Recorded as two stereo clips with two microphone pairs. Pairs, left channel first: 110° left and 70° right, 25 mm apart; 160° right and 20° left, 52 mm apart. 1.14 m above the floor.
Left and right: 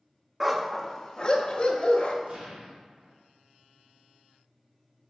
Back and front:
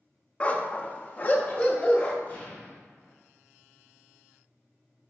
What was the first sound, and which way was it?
A dog barking, 135° right.